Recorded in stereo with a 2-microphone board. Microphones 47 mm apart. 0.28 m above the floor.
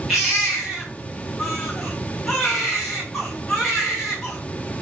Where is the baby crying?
Centre (ahead or behind), 7.5 m.